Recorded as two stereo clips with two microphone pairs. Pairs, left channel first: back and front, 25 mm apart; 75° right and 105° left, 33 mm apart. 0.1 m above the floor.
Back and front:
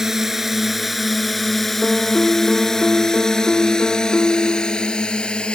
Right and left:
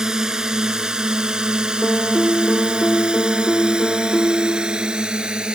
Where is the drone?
55° left; by 5.6 s 155° left.